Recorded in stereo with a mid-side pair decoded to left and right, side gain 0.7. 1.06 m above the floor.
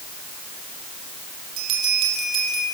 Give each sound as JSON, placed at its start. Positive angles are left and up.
{"t": 1.6, "sound": "a bell", "azimuth_deg": -70, "distance_m": 5.0}